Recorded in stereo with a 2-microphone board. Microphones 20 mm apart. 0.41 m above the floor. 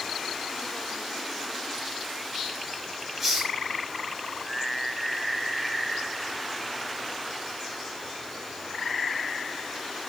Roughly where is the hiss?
Centre.